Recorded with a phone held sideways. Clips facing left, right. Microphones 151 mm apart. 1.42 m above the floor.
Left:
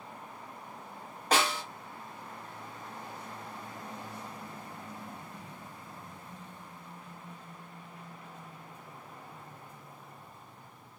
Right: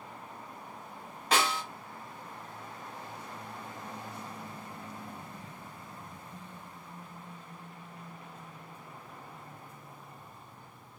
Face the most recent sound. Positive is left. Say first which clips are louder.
# even
turn(degrees=45)  # may be behind; listen again after turning